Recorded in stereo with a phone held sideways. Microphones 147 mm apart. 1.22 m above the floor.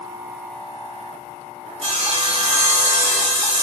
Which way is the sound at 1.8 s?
40° right (ahead or behind).